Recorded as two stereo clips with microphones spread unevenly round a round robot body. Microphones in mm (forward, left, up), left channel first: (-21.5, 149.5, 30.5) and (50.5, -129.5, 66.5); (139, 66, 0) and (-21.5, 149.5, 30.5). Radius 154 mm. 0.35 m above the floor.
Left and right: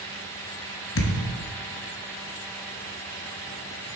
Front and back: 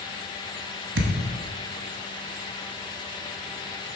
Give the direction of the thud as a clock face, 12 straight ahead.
7 o'clock.